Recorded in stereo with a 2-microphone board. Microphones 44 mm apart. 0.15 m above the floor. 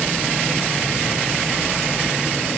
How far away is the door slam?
No door slam in this recording.